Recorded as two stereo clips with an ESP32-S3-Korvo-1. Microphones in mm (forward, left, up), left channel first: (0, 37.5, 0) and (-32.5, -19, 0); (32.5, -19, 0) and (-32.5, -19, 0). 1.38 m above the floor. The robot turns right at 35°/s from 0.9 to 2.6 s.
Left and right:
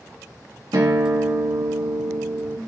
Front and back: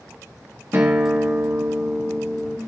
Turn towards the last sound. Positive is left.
turn(degrees=-65)